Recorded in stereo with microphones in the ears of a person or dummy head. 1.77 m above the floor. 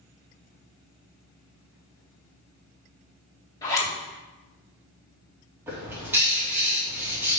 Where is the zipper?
20° left (ahead or behind), 2.5 m.